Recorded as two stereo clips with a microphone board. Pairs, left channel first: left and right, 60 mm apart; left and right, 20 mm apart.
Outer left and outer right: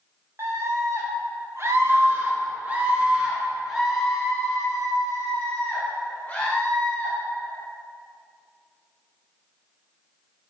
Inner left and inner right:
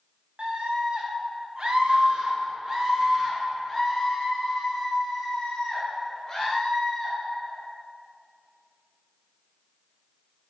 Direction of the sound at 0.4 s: 50° right (ahead or behind).